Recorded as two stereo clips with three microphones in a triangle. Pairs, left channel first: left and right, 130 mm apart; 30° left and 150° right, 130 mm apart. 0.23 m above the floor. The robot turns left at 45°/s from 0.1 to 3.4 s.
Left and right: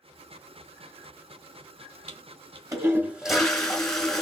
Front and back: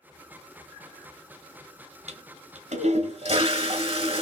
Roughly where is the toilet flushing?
Behind right.